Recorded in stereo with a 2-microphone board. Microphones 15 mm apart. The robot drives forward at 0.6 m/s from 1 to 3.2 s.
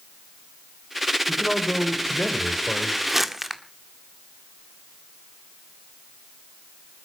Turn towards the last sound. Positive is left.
turn(degrees=-10)  # may be behind; listen again after turning